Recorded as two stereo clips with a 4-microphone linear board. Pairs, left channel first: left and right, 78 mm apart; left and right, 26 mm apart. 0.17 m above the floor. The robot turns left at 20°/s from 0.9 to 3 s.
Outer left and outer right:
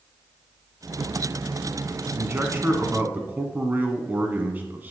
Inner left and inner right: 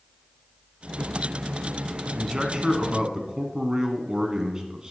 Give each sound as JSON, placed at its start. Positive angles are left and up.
{"t": 2.2, "sound": "a man speaking", "side_deg": -30, "distance_m": 1.2}